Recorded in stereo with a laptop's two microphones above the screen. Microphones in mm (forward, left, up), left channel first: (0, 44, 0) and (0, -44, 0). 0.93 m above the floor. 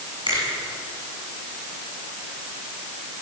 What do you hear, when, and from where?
0.3 s a finger snap: 65° right (ahead or behind), 8.5 m